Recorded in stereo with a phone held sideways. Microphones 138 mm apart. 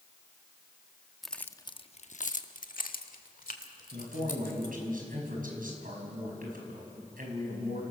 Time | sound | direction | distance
1.2 | keys jangling | centre (ahead or behind) | 0.8 m
3.9 | a man speaking | 85° right | 5 m